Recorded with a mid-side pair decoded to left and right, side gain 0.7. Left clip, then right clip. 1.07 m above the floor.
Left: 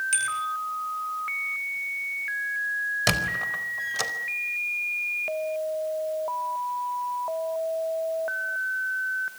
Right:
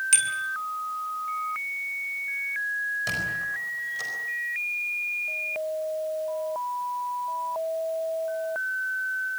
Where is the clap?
No clap in this recording.